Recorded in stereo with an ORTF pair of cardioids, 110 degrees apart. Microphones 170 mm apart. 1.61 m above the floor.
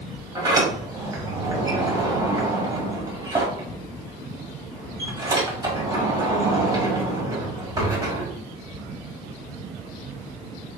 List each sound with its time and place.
0.3 s a sliding door: 25° right, 1.6 m